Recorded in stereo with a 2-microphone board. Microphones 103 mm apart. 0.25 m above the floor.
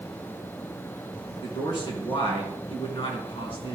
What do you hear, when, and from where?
1.4 s a man speaking: 55° left (ahead or behind), 2.5 m